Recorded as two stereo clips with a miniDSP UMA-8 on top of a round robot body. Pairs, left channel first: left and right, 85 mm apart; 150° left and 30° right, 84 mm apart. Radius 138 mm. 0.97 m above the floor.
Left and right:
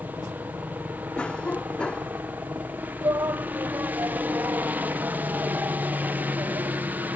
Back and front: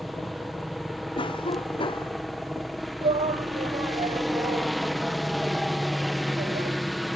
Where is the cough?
170° left.